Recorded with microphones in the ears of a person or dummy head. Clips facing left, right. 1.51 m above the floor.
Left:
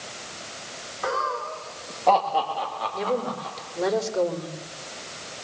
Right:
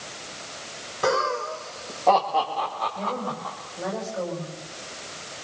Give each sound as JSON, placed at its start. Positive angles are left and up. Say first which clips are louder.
{"t": 1.0, "sound": "laughter", "louder": "right 5 dB", "side_deg": -50, "distance_m": 1.6}
{"t": 2.9, "sound": "a woman speaking", "louder": "left 4 dB", "side_deg": 75, "distance_m": 4.5}